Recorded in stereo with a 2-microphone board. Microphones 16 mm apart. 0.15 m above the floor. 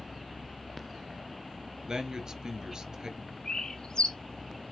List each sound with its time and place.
1.9 s a man speaking: 40° right (ahead or behind), 2.5 m
3.5 s a bird: 55° left (ahead or behind), 3 m